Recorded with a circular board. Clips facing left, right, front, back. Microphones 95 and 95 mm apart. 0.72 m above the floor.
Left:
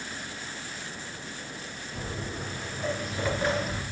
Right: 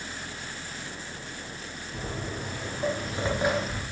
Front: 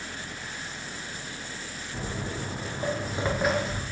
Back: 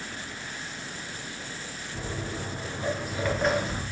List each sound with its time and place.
1.9 s footsteps: 40° right, 2.5 m; by 3.8 s 155° left, 0.8 m